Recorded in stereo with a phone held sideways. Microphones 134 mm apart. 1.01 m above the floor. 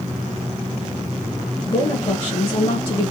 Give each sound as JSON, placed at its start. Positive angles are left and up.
{"t": 1.7, "sound": "a woman speaking", "side_deg": 35, "distance_m": 1.0}